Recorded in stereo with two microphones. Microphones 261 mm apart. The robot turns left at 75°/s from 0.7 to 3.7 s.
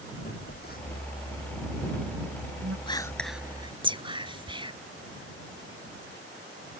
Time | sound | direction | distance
0.2 | a phone buzzing | 40° left (ahead or behind) | ?
2.9 | whispering | 20° left (ahead or behind) | ?